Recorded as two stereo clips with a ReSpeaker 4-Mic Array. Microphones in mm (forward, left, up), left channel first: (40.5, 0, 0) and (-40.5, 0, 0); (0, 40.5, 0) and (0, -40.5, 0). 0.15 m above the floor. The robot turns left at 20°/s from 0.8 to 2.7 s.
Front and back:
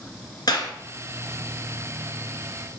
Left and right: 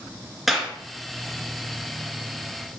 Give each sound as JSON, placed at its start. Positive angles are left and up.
{"t": 0.5, "sound": "a clap", "azimuth_deg": -5, "distance_m": 1.9}